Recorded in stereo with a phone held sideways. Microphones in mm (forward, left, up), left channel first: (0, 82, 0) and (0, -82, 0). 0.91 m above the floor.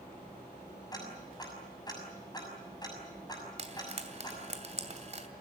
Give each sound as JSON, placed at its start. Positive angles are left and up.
{"t": 0.9, "sound": "ticking", "side_deg": 25, "distance_m": 6.0}
{"t": 3.6, "sound": "frying", "side_deg": -45, "distance_m": 2.5}